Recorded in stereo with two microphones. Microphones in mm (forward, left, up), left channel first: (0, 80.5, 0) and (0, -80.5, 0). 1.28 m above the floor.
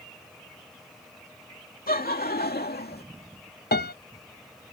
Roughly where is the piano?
Left.